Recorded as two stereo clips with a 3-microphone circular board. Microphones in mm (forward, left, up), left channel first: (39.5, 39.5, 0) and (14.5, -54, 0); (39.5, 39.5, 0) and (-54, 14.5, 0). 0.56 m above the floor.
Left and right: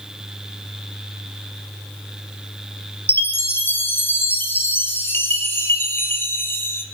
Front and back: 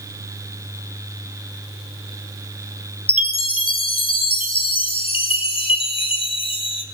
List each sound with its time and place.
3.1 s a chime: 10° left, 2.5 m